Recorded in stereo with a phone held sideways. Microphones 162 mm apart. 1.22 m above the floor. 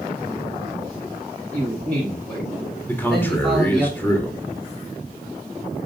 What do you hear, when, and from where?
1.5 s a man speaking: 10° left (ahead or behind), 8 m; by 3.9 s 5° right (ahead or behind), 7 m
2.9 s a man speaking: 10° left (ahead or behind), 3 m